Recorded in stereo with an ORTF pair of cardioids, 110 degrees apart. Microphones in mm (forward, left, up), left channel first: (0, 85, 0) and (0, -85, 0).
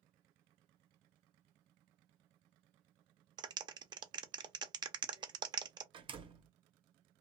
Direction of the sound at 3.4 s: 25° right.